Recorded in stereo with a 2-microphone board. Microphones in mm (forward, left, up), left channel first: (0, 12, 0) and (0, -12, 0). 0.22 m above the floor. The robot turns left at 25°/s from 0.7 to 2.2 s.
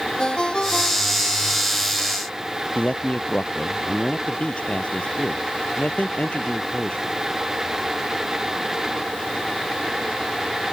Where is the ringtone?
30° left (ahead or behind); by 1.4 s 15° left (ahead or behind).